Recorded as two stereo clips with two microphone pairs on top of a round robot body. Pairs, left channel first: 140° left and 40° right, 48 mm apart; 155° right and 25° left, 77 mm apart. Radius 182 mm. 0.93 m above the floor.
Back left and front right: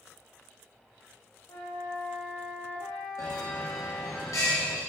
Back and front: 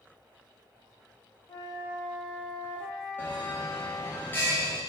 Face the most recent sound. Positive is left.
turn(degrees=140)